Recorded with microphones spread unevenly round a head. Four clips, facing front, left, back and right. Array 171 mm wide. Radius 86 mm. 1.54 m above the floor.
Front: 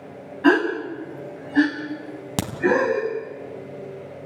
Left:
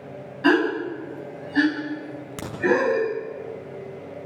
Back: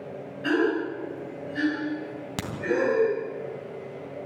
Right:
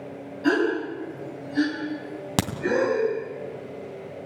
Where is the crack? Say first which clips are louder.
Right 11 dB, front 8 dB; 50° right, 3.5 m.